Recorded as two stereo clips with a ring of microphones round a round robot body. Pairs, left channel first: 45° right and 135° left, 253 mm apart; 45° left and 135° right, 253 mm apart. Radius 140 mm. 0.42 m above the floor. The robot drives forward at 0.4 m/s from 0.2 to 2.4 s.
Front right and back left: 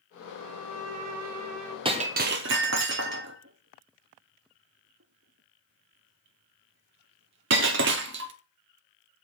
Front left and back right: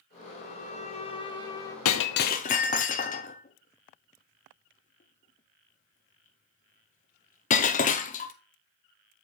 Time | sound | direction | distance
0.4 | a violin | 100° left | 1.4 m
1.9 | breaking glass | 70° left | 0.6 m